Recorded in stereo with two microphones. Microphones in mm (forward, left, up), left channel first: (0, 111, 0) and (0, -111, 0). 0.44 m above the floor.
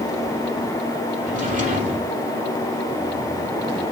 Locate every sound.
1.2 s a drawer: 35° right (ahead or behind), 4 m